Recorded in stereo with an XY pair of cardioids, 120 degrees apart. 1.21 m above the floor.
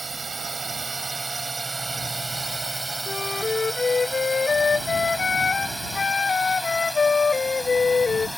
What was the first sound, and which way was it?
A drone, 25° right.